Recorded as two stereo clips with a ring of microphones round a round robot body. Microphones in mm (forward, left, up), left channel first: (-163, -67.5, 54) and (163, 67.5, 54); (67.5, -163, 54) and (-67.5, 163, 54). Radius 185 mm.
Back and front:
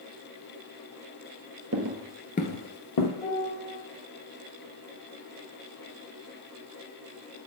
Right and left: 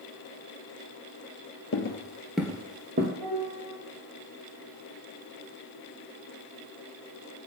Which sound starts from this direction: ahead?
Footsteps, at 1.7 s.